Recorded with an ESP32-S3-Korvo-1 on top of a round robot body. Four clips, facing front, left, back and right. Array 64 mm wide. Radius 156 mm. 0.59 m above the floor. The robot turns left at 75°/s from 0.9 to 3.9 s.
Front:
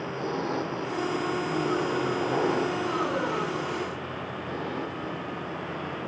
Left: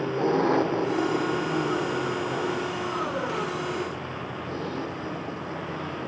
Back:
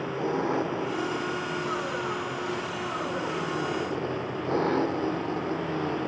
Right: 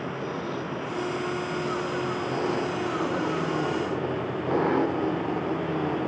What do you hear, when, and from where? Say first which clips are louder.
0.0 s an engine running: left 8 dB, back 2 dB; 100° left; by 6.1 s 125° right